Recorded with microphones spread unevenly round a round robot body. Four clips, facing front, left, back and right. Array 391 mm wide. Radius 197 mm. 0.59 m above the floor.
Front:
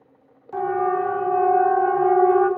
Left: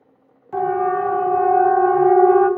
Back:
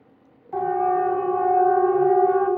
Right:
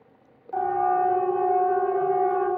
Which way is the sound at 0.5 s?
95° left.